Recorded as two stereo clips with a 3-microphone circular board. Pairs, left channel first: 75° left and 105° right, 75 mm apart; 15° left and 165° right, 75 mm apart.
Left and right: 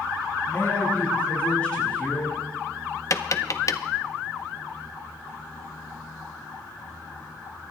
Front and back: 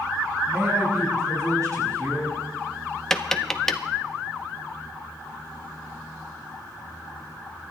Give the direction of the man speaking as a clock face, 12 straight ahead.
7 o'clock.